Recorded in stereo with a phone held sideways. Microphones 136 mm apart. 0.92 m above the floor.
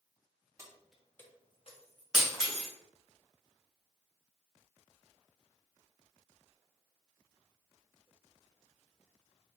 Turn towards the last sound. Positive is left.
turn(degrees=-5)  # may be behind; listen again after turning